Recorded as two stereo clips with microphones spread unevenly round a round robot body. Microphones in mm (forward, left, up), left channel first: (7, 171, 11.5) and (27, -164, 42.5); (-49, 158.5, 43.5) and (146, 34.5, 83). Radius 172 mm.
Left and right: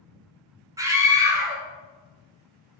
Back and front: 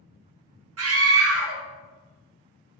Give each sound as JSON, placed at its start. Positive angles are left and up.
{"t": 0.8, "sound": "a scream", "azimuth_deg": -5, "distance_m": 1.0}